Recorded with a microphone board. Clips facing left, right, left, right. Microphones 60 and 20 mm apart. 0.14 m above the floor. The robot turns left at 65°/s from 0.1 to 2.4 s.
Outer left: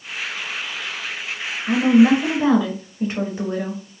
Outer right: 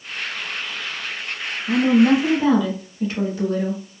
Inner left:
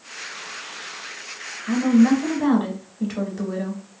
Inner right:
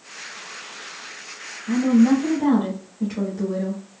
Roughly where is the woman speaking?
Left.